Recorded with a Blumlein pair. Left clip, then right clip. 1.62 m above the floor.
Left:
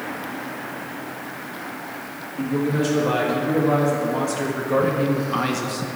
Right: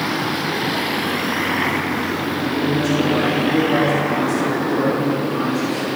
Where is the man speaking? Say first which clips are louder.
Even; 20° left, 3.5 m; by 5.9 s 55° left, 2.0 m.